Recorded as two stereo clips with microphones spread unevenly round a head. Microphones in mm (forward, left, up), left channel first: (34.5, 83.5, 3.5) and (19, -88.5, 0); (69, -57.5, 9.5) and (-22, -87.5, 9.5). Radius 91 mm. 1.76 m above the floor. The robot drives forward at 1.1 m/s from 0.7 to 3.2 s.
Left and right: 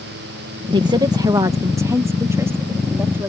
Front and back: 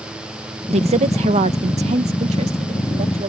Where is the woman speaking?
160° right; by 3.3 s 175° right.